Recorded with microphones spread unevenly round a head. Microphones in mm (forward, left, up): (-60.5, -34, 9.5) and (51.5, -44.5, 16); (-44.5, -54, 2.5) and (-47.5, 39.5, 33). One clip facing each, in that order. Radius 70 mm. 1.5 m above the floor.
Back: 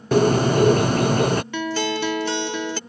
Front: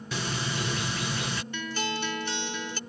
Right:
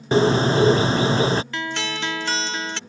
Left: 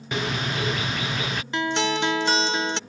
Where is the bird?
145° right.